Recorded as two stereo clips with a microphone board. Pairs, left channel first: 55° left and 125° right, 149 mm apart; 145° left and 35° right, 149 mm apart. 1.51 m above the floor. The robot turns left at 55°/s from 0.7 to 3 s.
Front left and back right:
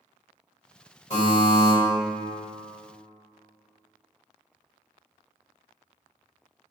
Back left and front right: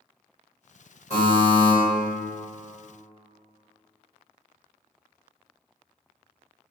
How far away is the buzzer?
About 1.4 m.